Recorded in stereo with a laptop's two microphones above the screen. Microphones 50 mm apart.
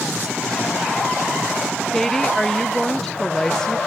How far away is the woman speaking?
About 0.6 m.